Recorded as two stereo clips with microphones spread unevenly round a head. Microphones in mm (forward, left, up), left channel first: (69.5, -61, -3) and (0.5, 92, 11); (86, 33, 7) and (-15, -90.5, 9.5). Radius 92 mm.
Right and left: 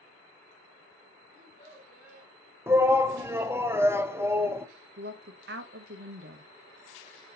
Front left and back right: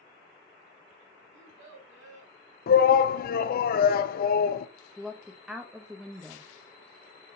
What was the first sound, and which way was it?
A child speaking, 130° right.